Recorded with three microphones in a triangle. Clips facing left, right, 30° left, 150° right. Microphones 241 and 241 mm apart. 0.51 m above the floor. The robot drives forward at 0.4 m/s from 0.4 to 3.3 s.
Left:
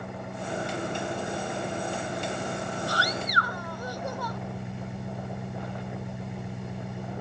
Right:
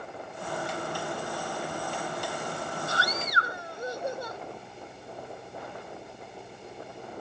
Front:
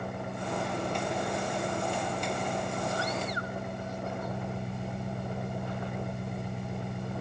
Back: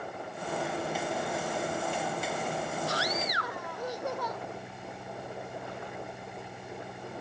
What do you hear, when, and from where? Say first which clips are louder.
0.0 s an engine running: left 3 dB, front 3 dB; 65° left; by 7.2 s 70° left
2.9 s a scream: left 2 dB, front 1 dB; 155° right